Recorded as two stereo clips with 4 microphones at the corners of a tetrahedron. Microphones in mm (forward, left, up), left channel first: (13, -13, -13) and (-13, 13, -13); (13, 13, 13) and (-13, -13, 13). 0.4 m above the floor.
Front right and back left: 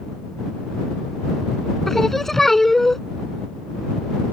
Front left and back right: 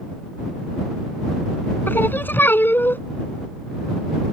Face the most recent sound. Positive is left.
turn(degrees=35)